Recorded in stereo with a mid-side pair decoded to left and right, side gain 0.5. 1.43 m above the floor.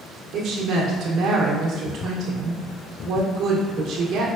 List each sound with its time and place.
0.3 s a woman speaking: 65° right, 1.3 m